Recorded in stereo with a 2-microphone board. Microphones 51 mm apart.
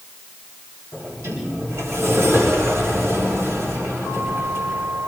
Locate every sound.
0.9 s a sliding door: 80° right, 8 m